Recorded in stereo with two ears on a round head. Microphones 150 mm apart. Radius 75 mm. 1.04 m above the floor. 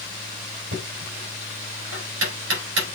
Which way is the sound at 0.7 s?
85° right.